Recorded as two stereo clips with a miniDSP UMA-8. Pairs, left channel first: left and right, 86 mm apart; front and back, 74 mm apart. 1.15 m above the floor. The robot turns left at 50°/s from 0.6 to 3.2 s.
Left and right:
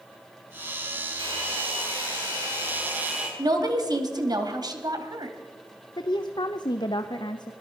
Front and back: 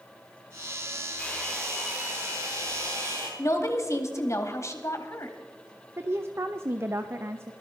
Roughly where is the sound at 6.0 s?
Behind left.